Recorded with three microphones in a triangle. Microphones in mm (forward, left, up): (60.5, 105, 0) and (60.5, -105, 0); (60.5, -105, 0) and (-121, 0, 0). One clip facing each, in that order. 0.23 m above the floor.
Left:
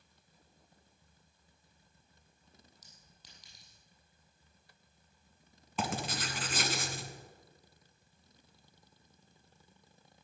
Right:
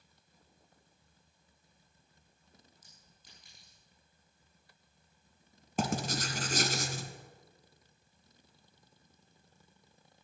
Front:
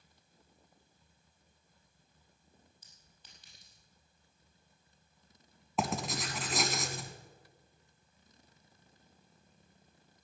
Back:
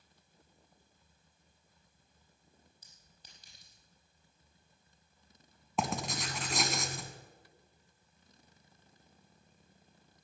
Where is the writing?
120° right, 1.3 m.